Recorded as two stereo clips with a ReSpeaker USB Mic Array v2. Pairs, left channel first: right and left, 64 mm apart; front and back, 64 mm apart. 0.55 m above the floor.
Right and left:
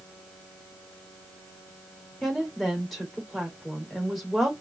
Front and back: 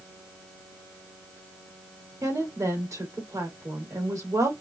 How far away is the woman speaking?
About 2 m.